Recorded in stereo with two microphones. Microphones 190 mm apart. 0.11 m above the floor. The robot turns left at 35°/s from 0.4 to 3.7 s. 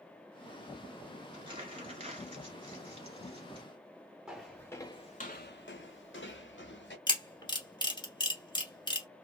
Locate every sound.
1.3 s crumpling: 25° right (ahead or behind), 1.8 m
4.3 s footsteps: 5° right (ahead or behind), 0.8 m; by 7.0 s 70° left (ahead or behind), 1.1 m
7.1 s a camera shutter: 25° left (ahead or behind), 1.2 m